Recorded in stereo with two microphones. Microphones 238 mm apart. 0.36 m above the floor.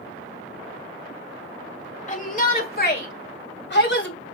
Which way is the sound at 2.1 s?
30° left (ahead or behind).